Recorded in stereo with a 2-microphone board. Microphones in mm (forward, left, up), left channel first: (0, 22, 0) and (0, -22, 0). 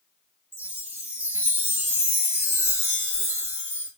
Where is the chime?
80° right, 3 m.